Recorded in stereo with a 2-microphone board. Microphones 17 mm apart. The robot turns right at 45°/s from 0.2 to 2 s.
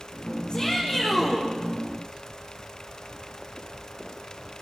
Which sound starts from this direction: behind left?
A shout, at 0.5 s.